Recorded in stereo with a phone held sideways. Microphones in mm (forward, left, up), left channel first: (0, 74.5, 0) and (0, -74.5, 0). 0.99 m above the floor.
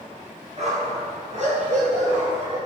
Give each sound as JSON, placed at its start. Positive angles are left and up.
{"t": 0.6, "sound": "a dog barking", "side_deg": -50, "distance_m": 3.5}